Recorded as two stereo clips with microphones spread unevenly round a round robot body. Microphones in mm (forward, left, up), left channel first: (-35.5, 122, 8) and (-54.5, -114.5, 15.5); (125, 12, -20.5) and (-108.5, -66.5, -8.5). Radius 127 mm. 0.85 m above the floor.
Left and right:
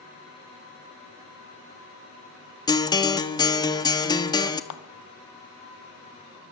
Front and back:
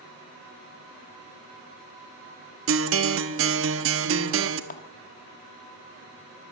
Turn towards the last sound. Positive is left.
turn(degrees=75)